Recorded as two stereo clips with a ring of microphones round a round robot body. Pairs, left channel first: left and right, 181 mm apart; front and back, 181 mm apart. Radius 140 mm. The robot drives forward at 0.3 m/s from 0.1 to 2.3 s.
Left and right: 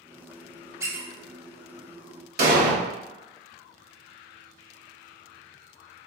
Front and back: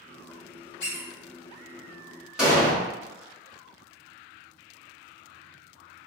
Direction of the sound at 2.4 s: 95° right.